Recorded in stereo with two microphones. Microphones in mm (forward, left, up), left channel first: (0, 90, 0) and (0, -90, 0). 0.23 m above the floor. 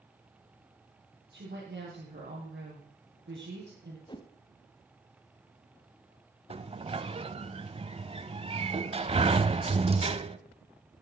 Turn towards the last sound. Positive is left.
turn(degrees=-35)  # may be behind; listen again after turning